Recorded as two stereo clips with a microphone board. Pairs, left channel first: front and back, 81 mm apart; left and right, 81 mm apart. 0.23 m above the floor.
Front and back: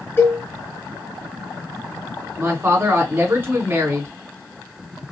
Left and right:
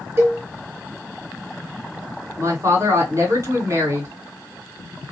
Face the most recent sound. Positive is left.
turn(degrees=-125)